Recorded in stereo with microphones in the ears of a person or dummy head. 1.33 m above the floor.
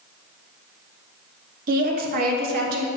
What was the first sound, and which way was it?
A woman speaking, 45° right (ahead or behind).